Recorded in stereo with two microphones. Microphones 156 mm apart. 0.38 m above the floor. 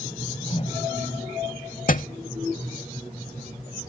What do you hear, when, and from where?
0.1 s a whoosh: 45° left (ahead or behind)
1.9 s a thud: 60° left (ahead or behind)